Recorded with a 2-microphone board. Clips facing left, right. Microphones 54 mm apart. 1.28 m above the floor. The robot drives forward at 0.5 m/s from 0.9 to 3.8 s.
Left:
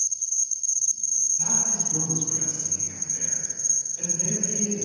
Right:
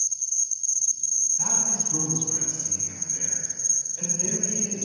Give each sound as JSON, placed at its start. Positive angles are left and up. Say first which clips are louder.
{"t": 0.0, "sound": "an insect", "louder": "even", "side_deg": 30, "distance_m": 0.7}
{"t": 1.4, "sound": "a man speaking", "louder": "even", "side_deg": -80, "distance_m": 1.5}